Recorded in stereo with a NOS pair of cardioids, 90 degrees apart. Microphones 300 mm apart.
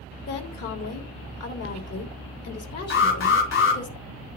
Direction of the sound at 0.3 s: 55° left.